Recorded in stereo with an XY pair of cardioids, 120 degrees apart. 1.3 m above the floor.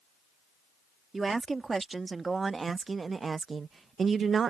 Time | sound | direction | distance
1.1 | a woman speaking | 20° right | ?